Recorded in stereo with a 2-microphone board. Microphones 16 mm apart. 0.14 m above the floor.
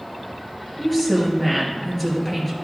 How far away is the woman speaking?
About 3 m.